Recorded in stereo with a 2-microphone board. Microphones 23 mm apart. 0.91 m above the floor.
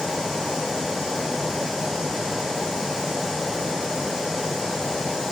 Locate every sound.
Only background noise.